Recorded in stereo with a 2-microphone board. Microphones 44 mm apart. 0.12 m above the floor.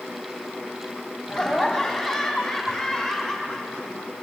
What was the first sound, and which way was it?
Laughter, centre (ahead or behind).